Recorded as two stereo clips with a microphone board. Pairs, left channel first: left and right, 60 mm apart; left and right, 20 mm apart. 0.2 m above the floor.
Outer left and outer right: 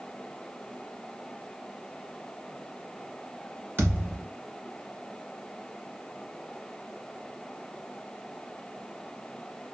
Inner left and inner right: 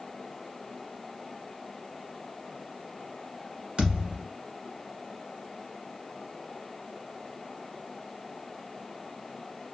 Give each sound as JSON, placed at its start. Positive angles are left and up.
{"t": 3.8, "sound": "a thud", "side_deg": -35, "distance_m": 1.3}